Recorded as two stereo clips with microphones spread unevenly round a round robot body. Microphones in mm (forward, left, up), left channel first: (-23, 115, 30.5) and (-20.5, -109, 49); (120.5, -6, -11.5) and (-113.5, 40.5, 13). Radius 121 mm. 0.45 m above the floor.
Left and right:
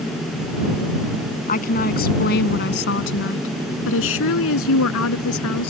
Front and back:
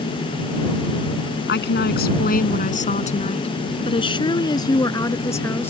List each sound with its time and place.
1.5 s a woman speaking: 35° left; by 5.7 s 70° left